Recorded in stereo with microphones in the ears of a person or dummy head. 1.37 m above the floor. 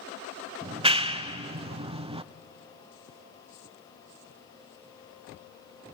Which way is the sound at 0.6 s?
35° right (ahead or behind).